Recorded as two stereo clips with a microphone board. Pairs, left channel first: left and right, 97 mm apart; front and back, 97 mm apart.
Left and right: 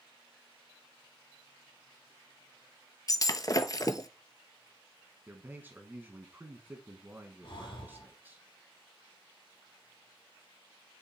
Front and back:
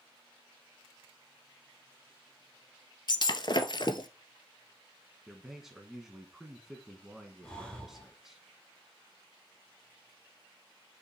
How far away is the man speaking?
About 1.0 m.